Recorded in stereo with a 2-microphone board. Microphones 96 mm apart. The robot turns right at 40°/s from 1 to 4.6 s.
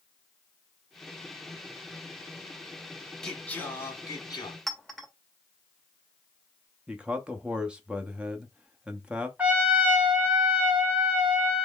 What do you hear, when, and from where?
3.2 s singing: 5° left, 1.2 m; by 4.6 s 60° left, 1.2 m
4.7 s a clink: centre (ahead or behind), 0.7 m
6.9 s a man speaking: 10° right (ahead or behind), 0.6 m
9.4 s a trumpet: 15° right (ahead or behind), 1.3 m